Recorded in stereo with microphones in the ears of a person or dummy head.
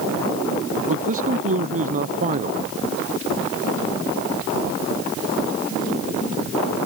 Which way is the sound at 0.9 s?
40° right (ahead or behind).